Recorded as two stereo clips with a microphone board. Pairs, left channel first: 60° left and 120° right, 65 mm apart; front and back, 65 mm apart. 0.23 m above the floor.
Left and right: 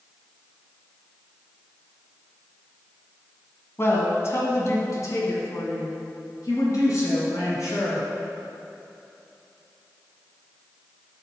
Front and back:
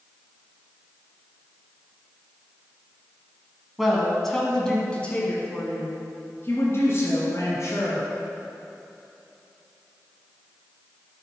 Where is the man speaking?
95° left, 1.6 m; by 8.1 s 30° left, 2.5 m.